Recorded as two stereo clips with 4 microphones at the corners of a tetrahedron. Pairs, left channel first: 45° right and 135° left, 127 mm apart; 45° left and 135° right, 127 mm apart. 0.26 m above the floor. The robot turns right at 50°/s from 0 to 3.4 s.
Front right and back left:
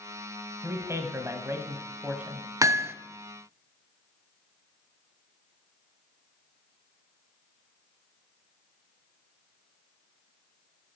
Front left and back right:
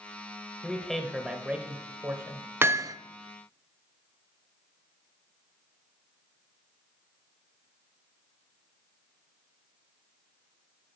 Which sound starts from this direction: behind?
Hammering, at 2.6 s.